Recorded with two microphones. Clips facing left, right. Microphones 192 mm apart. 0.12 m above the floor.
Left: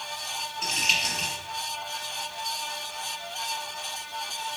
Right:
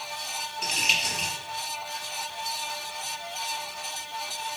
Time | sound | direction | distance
0.6 | crumpling | centre (ahead or behind) | 1.8 m